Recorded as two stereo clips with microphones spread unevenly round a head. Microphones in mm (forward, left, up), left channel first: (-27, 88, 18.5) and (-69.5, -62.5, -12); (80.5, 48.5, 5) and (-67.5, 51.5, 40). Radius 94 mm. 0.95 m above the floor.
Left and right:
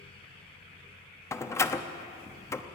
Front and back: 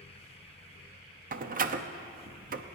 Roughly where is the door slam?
Behind left.